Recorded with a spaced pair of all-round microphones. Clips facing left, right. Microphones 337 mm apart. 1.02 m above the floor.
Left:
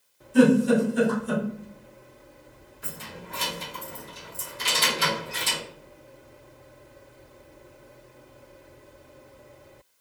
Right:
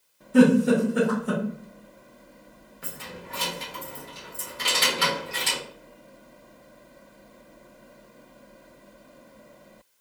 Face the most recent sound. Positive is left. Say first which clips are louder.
# right 1 dB
turn(degrees=-90)